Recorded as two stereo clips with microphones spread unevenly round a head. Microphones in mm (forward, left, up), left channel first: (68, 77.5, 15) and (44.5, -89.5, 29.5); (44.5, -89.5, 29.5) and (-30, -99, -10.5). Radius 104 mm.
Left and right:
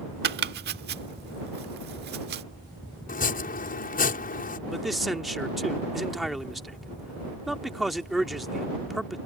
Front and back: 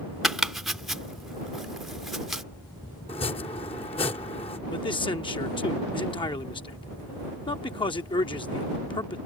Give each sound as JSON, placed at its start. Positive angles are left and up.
{"t": 0.2, "sound": "chopping", "azimuth_deg": -75}
{"t": 3.1, "sound": "chopping", "azimuth_deg": 45}
{"t": 4.7, "sound": "a man speaking", "azimuth_deg": -10}